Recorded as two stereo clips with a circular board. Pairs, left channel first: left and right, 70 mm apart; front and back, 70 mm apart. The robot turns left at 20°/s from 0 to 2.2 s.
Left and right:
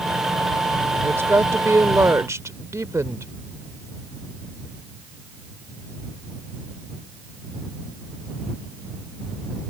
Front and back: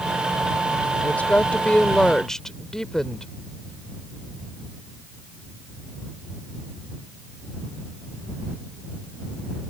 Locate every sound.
1.0 s a woman speaking: 55° right; by 3.3 s 80° right